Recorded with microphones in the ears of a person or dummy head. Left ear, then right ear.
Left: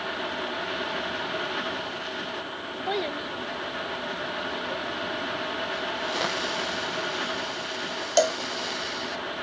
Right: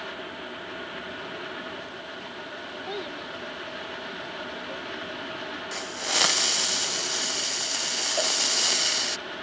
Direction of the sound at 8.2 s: 75° left (ahead or behind).